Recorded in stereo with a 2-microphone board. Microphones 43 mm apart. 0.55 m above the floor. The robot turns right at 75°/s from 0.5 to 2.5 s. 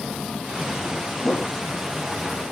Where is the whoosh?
45° left (ahead or behind), 3 m; by 1.6 s 25° left (ahead or behind), 3 m.